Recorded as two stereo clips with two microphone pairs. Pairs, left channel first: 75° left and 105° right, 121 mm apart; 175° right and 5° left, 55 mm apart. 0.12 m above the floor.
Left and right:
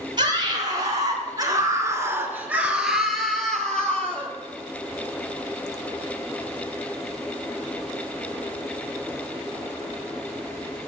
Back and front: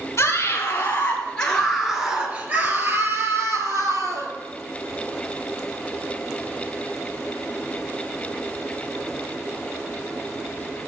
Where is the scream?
145° right, 2.0 m; by 4.3 s 5° right, 2.5 m.